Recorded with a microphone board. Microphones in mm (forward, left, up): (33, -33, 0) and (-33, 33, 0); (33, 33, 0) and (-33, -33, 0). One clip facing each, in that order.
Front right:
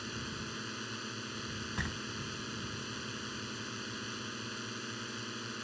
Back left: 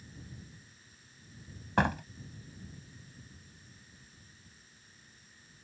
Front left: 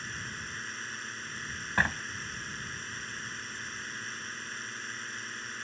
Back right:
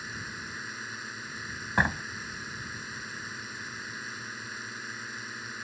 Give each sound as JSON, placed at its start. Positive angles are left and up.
{"t": 0.0, "sound": "a drone", "azimuth_deg": -55}
{"t": 1.8, "sound": "a door slam", "azimuth_deg": 150}